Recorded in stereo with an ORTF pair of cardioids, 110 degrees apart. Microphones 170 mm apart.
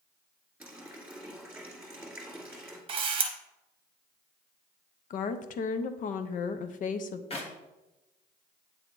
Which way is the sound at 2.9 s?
30° right.